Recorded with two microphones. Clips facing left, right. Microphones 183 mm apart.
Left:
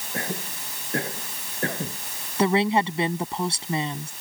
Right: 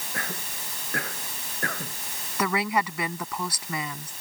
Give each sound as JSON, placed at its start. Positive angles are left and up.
{"t": 0.1, "sound": "a cough", "side_deg": 25}
{"t": 2.4, "sound": "a woman speaking", "side_deg": 25}